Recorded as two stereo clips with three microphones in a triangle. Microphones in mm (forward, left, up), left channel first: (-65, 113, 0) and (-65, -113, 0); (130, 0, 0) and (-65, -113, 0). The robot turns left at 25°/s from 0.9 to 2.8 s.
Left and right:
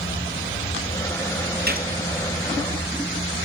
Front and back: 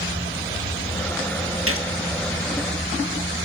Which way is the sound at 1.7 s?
135° right.